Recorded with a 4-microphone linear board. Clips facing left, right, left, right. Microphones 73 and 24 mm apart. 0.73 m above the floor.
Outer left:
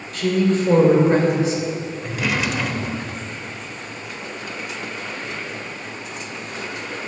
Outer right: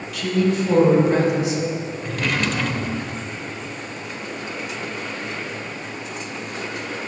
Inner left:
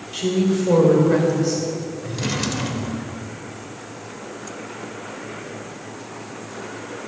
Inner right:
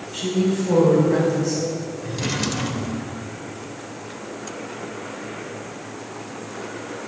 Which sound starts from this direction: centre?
A drawer, at 2.0 s.